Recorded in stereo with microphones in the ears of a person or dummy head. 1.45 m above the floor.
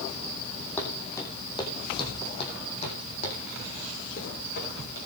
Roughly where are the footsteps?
Centre.